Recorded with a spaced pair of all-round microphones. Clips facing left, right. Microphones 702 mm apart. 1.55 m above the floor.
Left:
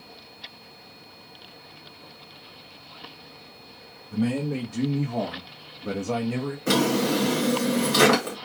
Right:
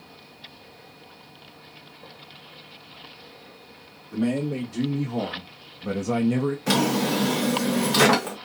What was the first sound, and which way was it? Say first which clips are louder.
A man speaking: right 1 dB; 35° left (ahead or behind).